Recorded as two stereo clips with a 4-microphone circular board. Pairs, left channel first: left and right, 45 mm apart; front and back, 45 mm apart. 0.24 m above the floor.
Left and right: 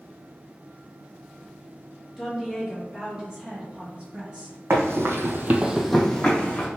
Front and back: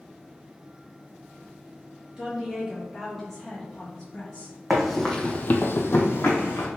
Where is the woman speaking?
170° right, 1.3 m; by 4.5 s 50° right, 1.7 m.